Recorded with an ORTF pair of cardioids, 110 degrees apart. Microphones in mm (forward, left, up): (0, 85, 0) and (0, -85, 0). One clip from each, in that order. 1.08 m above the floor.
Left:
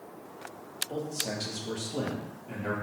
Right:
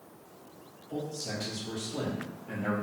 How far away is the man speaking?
About 1.1 m.